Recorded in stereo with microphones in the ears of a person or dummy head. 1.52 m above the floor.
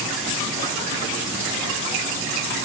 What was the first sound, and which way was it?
Only background noise.